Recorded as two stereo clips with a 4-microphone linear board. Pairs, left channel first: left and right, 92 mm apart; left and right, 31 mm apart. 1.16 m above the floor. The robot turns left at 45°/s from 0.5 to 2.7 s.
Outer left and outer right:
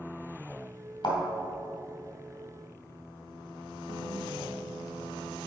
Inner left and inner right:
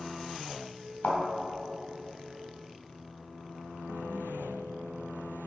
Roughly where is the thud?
Left.